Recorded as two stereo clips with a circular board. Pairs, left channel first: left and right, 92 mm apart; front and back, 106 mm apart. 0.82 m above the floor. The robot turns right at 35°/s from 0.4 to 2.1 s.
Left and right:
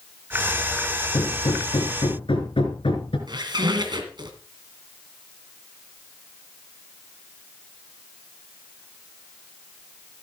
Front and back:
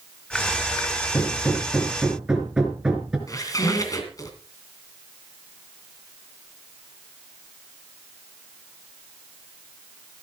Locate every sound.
1.1 s hammering: 65° left, 3 m; by 3.2 s 95° left, 3 m
3.3 s a squeak: 55° right, 2.5 m